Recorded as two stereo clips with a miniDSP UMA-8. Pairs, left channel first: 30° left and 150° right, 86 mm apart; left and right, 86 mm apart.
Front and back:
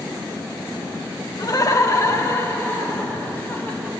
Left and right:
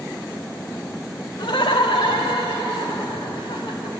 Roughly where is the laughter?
Left.